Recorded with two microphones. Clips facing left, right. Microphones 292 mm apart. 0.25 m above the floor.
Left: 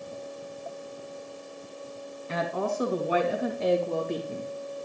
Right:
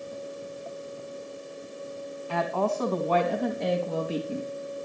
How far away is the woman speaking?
About 2 m.